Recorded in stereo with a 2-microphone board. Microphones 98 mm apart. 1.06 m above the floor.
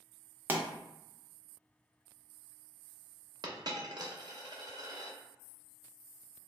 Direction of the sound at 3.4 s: 45° right (ahead or behind).